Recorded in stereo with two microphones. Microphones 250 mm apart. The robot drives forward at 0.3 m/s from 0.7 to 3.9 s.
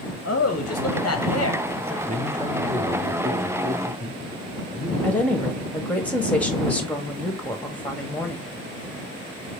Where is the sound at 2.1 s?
30° right (ahead or behind), 1.2 m; by 4.9 s 20° right (ahead or behind), 1.7 m.